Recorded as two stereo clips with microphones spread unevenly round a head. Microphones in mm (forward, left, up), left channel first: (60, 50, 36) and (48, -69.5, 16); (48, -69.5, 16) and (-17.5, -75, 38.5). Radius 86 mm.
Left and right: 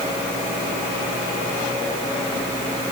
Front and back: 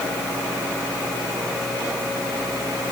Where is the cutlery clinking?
I don't hear cutlery clinking.